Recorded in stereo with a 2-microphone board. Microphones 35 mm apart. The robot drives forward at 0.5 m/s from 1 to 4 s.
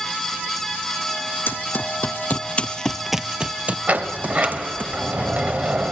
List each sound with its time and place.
1.5 s running footsteps: 70° left (ahead or behind), 1.1 m; by 4.9 s 50° right (ahead or behind), 1.5 m
3.9 s a sliding door: 45° right (ahead or behind), 0.9 m; by 5.9 s 40° right (ahead or behind), 0.9 m